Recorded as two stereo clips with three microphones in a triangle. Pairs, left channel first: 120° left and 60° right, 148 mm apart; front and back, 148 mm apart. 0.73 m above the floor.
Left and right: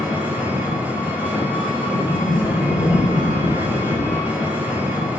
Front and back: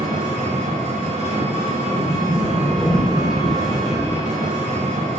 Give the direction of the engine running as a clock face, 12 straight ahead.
5 o'clock.